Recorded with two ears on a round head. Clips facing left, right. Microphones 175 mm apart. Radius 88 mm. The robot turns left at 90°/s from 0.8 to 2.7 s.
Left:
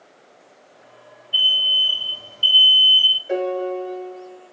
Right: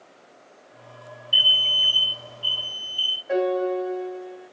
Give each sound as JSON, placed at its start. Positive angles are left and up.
{"t": 1.3, "sound": "an alarm", "azimuth_deg": -120, "distance_m": 1.6}
{"t": 3.3, "sound": "a piano", "side_deg": 35, "distance_m": 2.0}